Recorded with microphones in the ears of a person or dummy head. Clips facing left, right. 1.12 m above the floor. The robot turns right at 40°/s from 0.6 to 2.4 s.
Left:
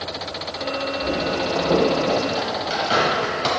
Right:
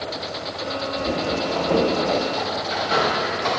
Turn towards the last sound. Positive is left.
turn(degrees=50)  # may be behind; listen again after turning